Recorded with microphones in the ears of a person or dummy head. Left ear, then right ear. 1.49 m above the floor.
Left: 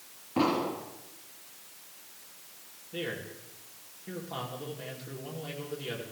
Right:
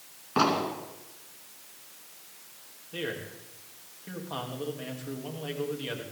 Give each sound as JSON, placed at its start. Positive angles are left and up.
{"t": 0.4, "sound": "an explosion", "side_deg": -60, "distance_m": 2.5}
{"t": 2.9, "sound": "a man speaking", "side_deg": -45, "distance_m": 3.0}